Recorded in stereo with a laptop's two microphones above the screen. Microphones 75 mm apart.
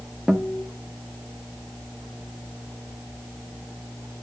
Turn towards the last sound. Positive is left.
turn(degrees=-5)  # may be behind; listen again after turning